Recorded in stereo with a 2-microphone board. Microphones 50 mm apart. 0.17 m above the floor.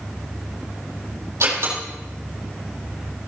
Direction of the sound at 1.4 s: 70° right (ahead or behind).